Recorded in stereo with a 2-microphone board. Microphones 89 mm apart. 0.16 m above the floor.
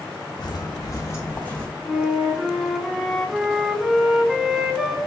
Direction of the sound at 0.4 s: 55° left (ahead or behind).